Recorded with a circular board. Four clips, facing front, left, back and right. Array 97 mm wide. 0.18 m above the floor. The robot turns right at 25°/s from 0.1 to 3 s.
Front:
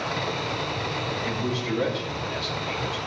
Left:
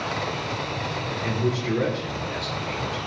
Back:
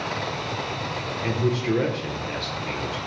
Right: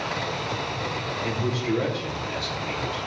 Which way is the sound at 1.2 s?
165° left.